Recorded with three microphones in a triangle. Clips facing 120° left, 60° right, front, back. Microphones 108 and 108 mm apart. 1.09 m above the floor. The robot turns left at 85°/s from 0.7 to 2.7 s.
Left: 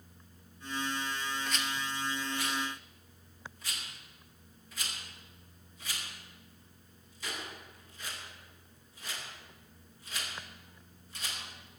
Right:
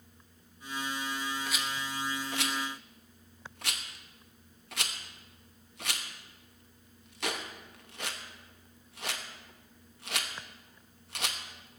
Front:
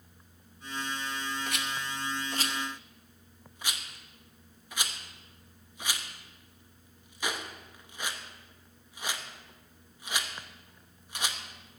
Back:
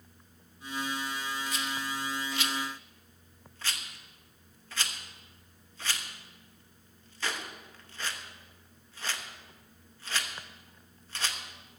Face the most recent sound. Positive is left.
turn(degrees=-75)